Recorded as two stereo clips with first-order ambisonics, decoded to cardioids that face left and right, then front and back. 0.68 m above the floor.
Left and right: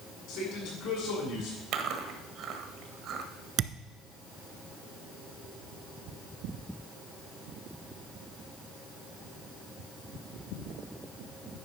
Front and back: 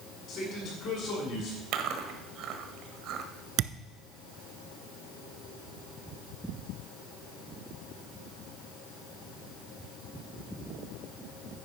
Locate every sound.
0.3 s a man speaking: 50° left, 6.5 m
1.7 s chewing: 140° right, 1.4 m
3.6 s a thud: 140° right, 1.1 m